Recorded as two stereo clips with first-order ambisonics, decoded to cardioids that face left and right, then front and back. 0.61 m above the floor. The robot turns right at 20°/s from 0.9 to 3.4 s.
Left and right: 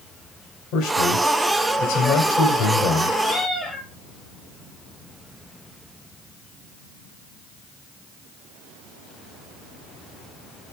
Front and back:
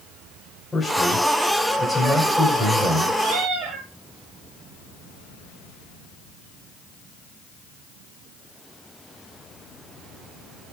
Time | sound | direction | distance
0.7 | a man speaking | 80° left | 2.5 m
3.2 | a cat meowing | straight behind | 5.5 m